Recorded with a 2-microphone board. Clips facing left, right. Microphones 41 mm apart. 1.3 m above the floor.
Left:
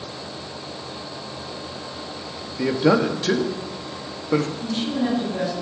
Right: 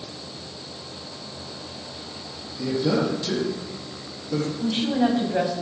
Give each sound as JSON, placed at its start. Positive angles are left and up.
{"t": 2.6, "sound": "a man speaking", "side_deg": 70, "distance_m": 2.0}
{"t": 4.6, "sound": "a woman speaking", "side_deg": -65, "distance_m": 8.0}